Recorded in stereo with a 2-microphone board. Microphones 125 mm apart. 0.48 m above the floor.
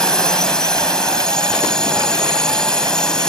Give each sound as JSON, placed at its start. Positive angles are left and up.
{"t": 0.0, "sound": "a drone", "side_deg": 5}